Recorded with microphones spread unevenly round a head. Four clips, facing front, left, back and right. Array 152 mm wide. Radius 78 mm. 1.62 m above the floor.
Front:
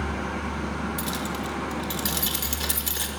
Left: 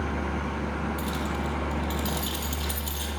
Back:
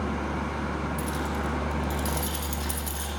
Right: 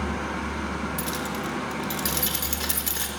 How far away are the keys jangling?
About 4.5 m.